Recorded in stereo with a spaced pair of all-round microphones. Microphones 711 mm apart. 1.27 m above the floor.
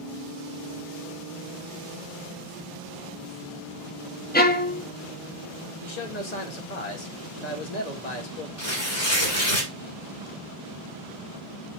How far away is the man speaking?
About 1.2 m.